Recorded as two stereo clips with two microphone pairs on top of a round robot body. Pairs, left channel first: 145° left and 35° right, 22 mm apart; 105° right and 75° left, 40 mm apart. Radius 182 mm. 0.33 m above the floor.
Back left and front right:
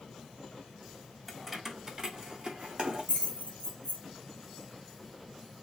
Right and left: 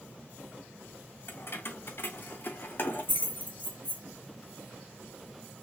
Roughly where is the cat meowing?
I don't hear a cat meowing.